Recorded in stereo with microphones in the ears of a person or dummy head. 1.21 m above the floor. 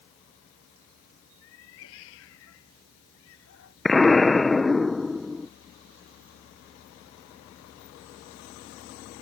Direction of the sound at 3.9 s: Centre (ahead or behind).